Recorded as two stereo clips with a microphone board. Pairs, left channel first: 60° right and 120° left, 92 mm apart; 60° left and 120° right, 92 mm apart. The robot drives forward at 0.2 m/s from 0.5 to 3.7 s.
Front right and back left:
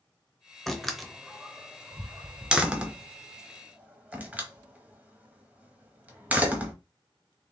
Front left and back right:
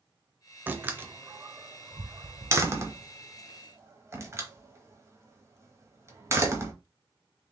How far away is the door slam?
About 0.6 m.